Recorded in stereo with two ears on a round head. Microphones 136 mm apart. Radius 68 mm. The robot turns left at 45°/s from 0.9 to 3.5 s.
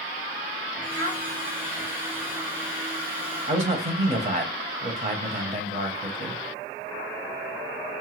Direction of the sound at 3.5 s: 45° right (ahead or behind).